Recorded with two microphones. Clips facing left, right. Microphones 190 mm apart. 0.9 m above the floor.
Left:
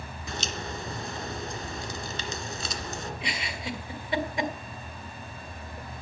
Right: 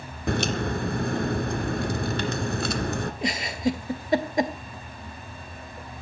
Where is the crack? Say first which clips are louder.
Right 11 dB; 60° right (ahead or behind), 1.9 m.